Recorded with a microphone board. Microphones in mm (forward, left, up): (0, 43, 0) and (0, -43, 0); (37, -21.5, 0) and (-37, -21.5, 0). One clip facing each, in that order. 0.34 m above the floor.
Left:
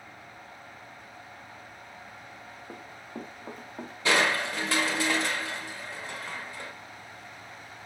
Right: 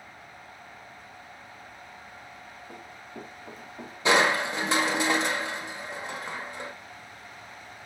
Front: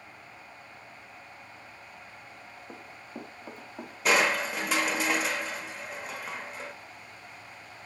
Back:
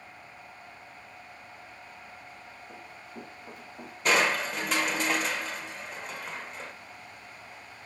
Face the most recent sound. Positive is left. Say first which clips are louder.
# right 3 dB, even
turn(degrees=-80)